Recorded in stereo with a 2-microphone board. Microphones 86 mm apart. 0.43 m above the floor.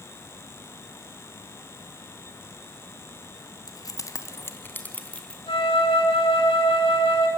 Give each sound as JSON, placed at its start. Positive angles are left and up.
{"t": 3.7, "sound": "keys jangling", "side_deg": 50, "distance_m": 2.5}
{"t": 5.5, "sound": "a flute", "side_deg": 80, "distance_m": 3.5}